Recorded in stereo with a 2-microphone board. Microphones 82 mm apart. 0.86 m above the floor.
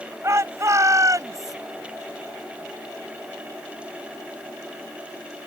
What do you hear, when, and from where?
0.2 s a shout: 35° right (ahead or behind); by 1.6 s 45° right (ahead or behind)